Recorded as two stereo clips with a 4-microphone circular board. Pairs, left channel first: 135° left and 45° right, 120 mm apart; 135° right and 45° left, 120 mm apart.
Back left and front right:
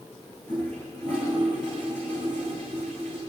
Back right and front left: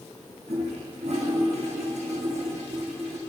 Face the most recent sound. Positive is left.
turn(degrees=60)